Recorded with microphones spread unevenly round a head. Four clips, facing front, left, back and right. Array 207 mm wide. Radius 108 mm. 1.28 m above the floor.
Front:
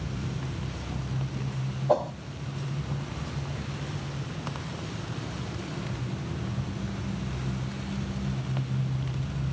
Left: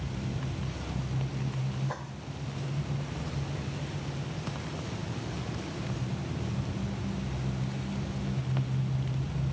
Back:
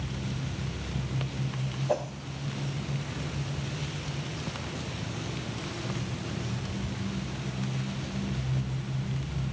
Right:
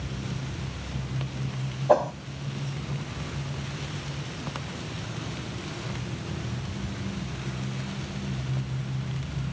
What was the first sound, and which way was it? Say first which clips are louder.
A whoosh: right 18 dB, front 5 dB; 70° right.